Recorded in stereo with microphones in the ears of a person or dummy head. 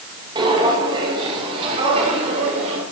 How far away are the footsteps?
About 7.5 m.